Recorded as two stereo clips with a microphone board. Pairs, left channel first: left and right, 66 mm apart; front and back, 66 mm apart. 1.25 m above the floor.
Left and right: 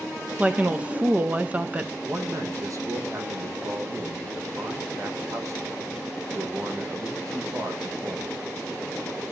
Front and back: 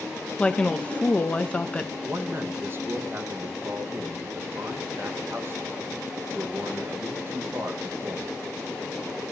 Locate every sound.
0.4 s a woman speaking: 50° right, 0.6 m
2.0 s a man speaking: 125° right, 1.2 m